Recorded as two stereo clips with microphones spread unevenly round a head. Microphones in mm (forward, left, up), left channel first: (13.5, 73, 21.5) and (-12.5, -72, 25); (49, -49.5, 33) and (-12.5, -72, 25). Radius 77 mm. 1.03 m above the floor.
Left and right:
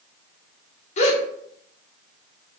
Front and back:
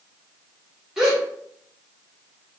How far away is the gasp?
About 0.6 m.